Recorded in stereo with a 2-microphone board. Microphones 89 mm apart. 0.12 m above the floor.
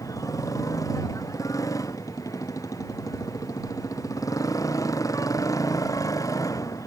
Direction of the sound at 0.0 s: 40° left (ahead or behind).